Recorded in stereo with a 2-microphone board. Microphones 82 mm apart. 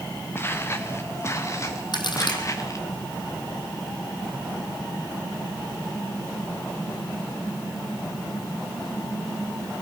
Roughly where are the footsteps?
Left.